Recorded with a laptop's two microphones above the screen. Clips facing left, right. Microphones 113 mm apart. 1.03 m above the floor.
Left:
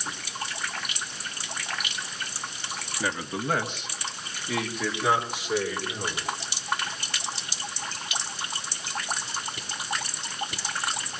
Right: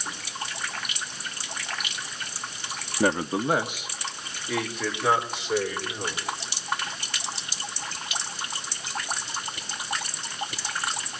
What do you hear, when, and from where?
3.0 s a man speaking: 55° right (ahead or behind), 0.6 m; by 6.2 s 10° left (ahead or behind), 4.5 m